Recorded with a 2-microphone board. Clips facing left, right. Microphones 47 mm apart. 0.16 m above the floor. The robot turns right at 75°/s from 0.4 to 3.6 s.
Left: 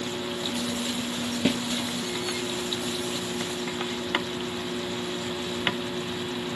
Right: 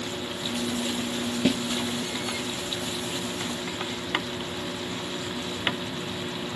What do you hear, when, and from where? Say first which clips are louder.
1.4 s a snare drum: right 1 dB; 5° left (ahead or behind), 0.6 m; by 1.6 s 20° left (ahead or behind), 0.6 m